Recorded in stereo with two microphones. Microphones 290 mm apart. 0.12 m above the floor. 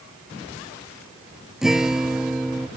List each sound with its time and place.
1.6 s a guitar: centre (ahead or behind)